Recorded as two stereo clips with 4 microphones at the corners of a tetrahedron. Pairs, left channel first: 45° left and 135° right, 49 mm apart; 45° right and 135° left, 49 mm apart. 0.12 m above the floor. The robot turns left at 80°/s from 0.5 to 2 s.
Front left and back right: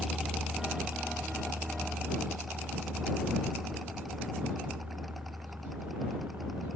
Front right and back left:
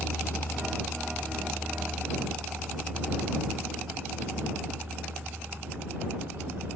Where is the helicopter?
50° right; by 6.8 s straight behind.